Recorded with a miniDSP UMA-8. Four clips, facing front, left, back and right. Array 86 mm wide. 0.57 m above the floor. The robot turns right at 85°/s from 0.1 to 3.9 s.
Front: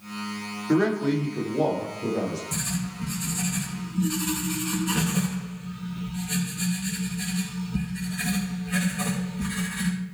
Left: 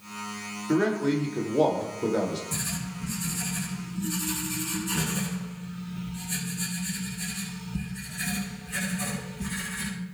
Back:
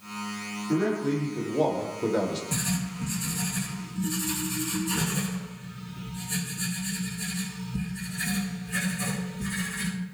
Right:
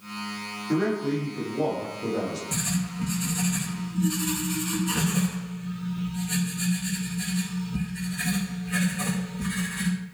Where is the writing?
145° right, 7 m; by 9.9 s 30° right, 7 m.